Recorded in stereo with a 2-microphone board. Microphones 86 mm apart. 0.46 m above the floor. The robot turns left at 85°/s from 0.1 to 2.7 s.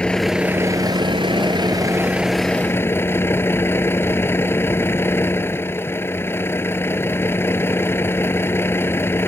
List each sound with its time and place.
0.0 s a vehicle: 15° left; by 9.3 s 150° left